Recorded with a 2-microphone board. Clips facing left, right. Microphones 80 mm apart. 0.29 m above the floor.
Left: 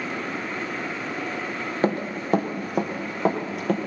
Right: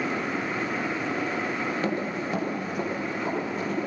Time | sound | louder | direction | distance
1.8 | running footsteps | left 3 dB | 40° left (ahead or behind) | 3 m